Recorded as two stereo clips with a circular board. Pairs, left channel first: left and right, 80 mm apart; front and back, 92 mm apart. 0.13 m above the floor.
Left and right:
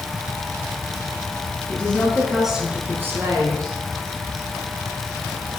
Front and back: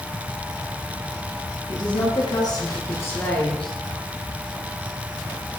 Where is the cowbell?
No cowbell in this recording.